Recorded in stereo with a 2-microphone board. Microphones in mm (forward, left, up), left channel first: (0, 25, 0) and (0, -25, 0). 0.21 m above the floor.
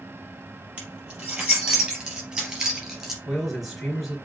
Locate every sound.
0.8 s keys jangling: 30° right (ahead or behind), 3.5 m; by 3.1 s 10° right (ahead or behind), 2.5 m
3.2 s a man speaking: 5° left (ahead or behind), 3.5 m